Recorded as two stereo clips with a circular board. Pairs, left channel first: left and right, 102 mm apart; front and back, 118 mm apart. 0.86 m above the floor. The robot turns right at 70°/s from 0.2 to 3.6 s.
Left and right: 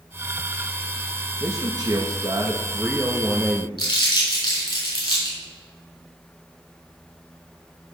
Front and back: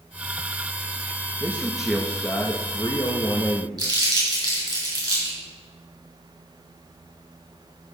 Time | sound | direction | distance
1.4 | a man speaking | 125° right | 1.2 m
3.8 | crumpling | 125° left | 5.5 m